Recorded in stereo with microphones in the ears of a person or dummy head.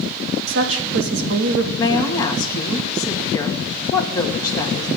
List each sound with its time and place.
0.5 s a woman speaking: 75° right (ahead or behind), 2 m
1.8 s a woman speaking: 25° left (ahead or behind), 2 m